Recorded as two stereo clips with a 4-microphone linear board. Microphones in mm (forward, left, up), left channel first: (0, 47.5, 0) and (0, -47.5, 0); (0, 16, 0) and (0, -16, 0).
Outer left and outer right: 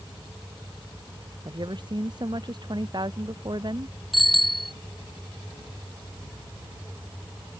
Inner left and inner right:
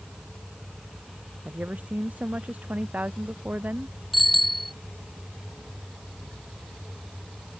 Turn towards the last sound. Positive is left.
turn(degrees=0)  # may be behind; listen again after turning